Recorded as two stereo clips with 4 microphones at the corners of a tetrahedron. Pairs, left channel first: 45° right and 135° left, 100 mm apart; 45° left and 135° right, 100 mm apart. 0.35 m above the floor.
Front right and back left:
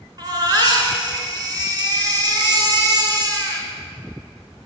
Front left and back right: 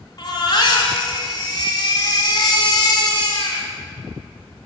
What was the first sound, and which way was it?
A baby crying, 90° left.